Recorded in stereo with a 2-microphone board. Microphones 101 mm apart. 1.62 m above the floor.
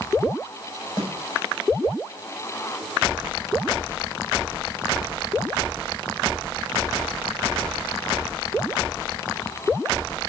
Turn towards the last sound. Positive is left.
turn(degrees=65)  # may be behind; listen again after turning